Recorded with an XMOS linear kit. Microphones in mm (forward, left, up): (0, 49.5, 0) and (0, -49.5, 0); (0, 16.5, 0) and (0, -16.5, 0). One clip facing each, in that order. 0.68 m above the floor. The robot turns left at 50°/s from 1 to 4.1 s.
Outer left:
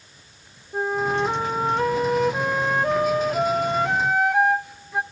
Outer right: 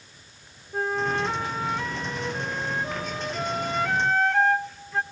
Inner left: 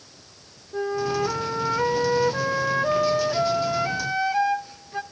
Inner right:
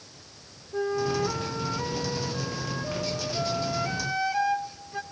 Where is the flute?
170° left, 0.6 m; by 5.0 s 15° left, 0.6 m.